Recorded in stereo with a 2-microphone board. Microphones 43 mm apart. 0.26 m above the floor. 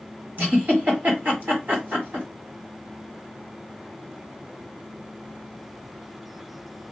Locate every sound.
0.4 s a giggle: 50° right (ahead or behind), 1.9 m